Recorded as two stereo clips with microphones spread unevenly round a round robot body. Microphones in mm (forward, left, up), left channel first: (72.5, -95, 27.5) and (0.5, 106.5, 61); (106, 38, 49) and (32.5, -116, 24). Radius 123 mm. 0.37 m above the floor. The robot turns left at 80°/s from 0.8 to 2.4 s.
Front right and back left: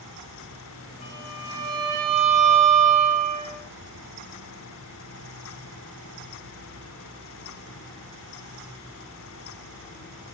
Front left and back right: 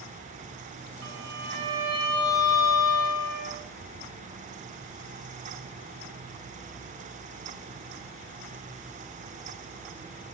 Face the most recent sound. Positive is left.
turn(degrees=115)